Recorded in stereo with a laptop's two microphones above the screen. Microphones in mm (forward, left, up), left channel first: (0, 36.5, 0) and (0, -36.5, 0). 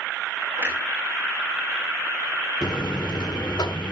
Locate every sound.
0.6 s a clunk: 35° right (ahead or behind), 5 m
2.6 s a buzzer: 80° left, 1.6 m